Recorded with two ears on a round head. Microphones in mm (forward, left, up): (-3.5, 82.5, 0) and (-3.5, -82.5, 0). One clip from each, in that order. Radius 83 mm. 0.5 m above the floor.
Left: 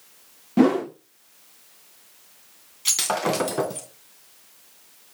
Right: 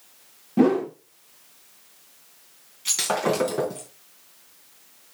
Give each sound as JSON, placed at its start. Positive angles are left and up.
{"t": 0.6, "sound": "a whoosh", "side_deg": 35, "distance_m": 0.8}
{"t": 2.9, "sound": "breaking glass", "side_deg": 25, "distance_m": 3.0}